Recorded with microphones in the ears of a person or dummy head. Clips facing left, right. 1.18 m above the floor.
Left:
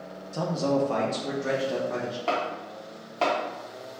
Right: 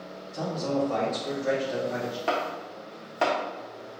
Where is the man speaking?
65° left (ahead or behind), 0.7 m; by 2.2 s 55° left (ahead or behind), 1.6 m.